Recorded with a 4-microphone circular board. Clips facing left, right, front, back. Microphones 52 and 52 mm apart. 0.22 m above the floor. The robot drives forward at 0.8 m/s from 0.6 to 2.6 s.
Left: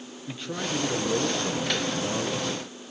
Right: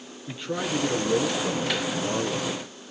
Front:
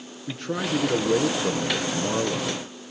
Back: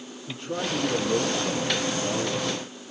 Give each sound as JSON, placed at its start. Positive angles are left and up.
{"t": 0.3, "sound": "a man speaking", "azimuth_deg": -5, "distance_m": 4.5}